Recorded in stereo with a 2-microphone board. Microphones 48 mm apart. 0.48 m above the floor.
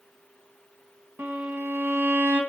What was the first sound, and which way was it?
A violin, 65° right (ahead or behind).